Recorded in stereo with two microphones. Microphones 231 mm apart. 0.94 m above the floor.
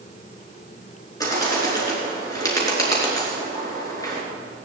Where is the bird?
15° left (ahead or behind), 4.5 m.